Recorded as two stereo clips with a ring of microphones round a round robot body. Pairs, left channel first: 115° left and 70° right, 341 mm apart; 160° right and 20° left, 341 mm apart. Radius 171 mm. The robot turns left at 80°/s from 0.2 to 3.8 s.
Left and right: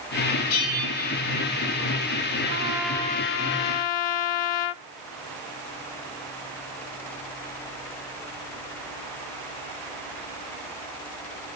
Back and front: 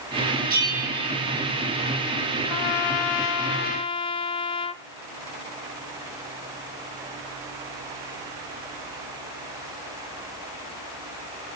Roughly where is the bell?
Left.